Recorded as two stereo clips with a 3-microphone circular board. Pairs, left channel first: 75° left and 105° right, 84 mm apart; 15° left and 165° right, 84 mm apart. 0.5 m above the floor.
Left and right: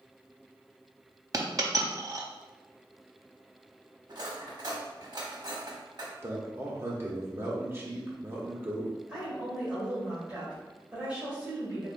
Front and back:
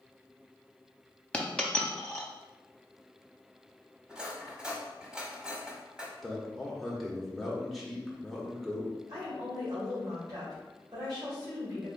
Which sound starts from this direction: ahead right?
A dropped coin, at 1.3 s.